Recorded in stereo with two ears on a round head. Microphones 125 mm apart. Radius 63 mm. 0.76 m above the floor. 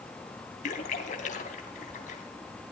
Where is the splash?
55° left (ahead or behind), 3 m.